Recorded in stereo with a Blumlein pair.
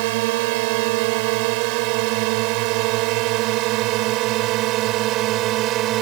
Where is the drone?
50° right; by 6.0 s 35° right.